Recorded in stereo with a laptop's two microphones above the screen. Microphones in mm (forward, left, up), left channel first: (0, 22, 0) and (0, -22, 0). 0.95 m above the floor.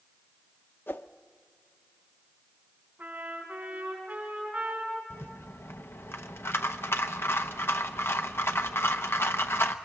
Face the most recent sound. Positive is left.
turn(degrees=65)  # may be behind; listen again after turning